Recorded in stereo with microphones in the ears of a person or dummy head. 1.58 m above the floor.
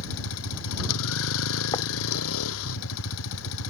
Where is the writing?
25° left (ahead or behind).